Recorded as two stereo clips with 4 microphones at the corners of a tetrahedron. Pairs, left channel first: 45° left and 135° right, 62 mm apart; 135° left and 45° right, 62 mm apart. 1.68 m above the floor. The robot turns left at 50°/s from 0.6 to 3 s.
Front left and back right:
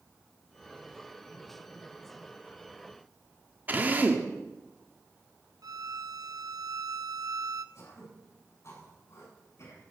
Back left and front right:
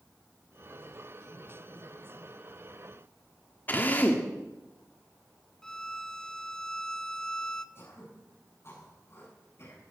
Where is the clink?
No clink in this recording.